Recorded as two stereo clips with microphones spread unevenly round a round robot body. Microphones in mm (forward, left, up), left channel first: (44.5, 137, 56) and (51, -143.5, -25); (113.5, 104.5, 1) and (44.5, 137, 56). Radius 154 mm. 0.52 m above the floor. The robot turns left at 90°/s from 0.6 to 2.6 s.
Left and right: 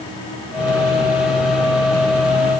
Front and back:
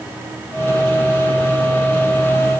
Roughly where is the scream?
No scream in this recording.